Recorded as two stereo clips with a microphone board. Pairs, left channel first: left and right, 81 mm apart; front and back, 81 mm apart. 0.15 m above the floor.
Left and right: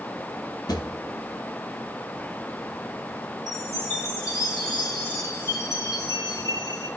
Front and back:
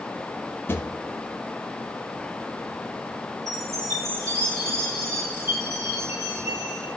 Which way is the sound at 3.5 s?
135° left.